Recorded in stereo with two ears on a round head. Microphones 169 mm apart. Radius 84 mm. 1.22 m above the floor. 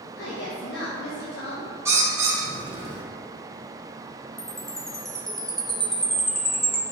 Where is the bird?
15° right (ahead or behind), 1.6 m.